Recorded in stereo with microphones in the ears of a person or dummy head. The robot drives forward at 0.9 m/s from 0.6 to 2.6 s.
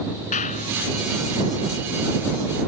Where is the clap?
40° left (ahead or behind).